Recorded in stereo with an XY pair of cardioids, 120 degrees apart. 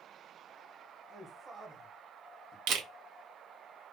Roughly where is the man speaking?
Ahead right.